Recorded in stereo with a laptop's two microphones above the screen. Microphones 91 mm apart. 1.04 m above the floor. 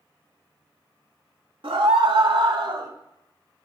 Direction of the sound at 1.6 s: 70° right (ahead or behind).